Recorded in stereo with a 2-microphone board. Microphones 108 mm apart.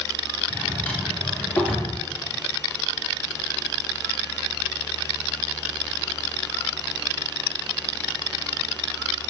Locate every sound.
0.5 s a drawer: 15° left (ahead or behind), 3.5 m